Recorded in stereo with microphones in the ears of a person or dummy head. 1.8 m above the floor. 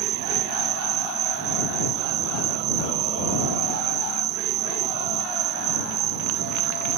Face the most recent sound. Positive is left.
turn(degrees=-35)  # may be behind; listen again after turning